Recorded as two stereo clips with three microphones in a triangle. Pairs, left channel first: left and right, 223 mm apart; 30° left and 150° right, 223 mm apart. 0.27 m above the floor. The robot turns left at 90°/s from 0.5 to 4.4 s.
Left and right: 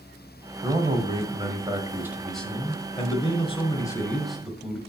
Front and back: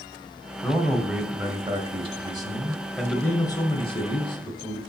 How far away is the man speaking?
About 1.2 m.